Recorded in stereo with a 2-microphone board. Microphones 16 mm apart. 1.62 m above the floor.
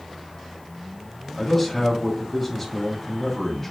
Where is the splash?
No splash in this recording.